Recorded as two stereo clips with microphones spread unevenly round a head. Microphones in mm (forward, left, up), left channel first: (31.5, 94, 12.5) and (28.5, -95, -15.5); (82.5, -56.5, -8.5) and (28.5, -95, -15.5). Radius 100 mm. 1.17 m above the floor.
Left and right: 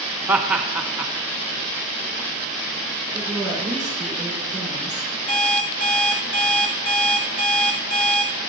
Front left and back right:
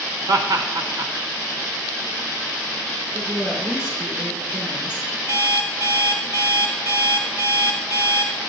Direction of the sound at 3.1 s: 175° left.